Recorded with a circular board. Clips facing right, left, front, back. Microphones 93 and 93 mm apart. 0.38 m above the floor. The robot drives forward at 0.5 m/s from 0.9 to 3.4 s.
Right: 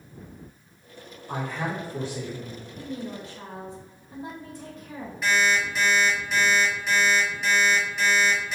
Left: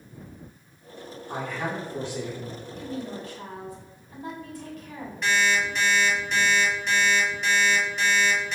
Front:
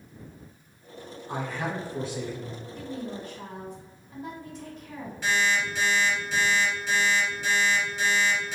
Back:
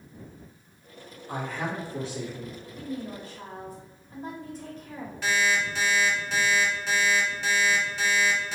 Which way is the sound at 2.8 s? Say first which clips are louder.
Even, back 1 dB; 130° right.